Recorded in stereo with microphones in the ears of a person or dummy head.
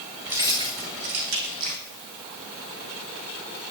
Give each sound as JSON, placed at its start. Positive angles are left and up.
{"t": 0.3, "sound": "keys jangling", "side_deg": -5, "distance_m": 1.7}